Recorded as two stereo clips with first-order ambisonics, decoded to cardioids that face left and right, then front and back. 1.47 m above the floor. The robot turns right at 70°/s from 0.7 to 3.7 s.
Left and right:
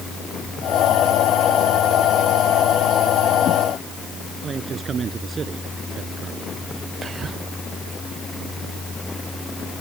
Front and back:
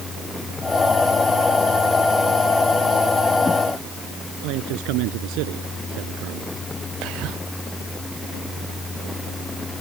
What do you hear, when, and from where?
4.4 s a man speaking: 160° right
7.0 s whispering: 160° right